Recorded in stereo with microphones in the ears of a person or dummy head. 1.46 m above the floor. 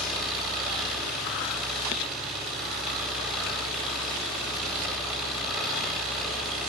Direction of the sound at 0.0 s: 5° right (ahead or behind).